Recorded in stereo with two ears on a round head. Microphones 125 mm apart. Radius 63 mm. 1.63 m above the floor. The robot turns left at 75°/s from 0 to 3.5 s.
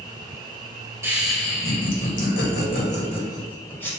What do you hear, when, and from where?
1.0 s laughter: 160° right, 1.5 m; by 3.9 s 15° left, 1.5 m